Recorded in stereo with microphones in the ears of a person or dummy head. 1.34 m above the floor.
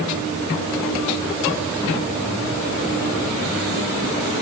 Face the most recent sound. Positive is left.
No sound to turn to.